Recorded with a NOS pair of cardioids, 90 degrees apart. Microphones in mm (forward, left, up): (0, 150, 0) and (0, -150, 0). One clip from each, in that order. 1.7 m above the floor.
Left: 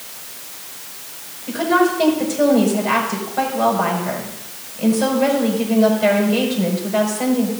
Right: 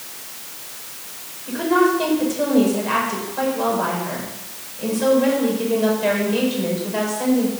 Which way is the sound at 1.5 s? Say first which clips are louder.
Left 1 dB; 30° left.